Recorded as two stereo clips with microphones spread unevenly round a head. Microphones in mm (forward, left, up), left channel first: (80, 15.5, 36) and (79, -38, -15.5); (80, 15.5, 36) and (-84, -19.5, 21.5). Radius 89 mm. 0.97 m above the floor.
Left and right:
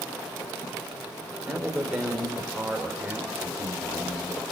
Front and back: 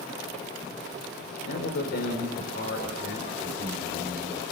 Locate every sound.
1.4 s a man speaking: 15° right, 4.5 m